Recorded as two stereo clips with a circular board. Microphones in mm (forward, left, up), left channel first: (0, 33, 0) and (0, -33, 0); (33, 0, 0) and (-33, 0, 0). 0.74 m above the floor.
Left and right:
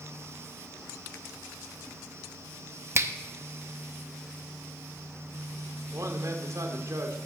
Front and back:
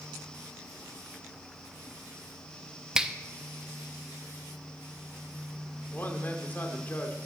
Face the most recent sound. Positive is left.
turn(degrees=-60)